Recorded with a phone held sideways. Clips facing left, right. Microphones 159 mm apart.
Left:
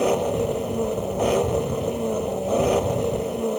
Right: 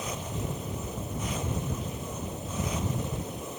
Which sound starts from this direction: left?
An engine running, at 0.0 s.